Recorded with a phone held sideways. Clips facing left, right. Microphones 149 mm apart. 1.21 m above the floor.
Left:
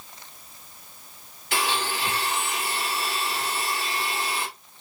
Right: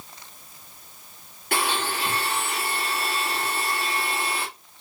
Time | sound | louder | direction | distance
1.5 | a blender | right 1 dB | 55° right (ahead or behind) | 2.5 m